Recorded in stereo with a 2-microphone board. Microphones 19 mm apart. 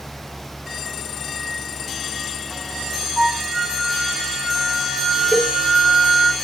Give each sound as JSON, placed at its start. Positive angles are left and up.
{"t": 3.2, "sound": "a flute", "side_deg": -10, "distance_m": 1.3}
{"t": 5.3, "sound": "a cowbell", "side_deg": 30, "distance_m": 1.9}